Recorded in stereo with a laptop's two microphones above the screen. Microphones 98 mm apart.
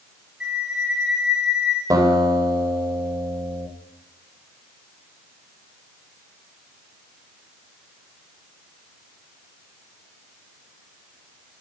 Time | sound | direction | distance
0.4 | a flute | 10° right (ahead or behind) | 3 m
1.9 | a guitar | 40° right (ahead or behind) | 2.5 m